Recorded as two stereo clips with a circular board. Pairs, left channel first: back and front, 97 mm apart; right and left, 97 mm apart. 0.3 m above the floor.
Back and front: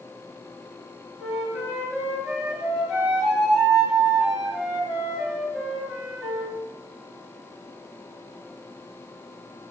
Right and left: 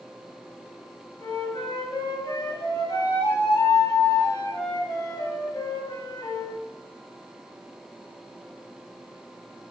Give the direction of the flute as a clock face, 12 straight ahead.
3 o'clock.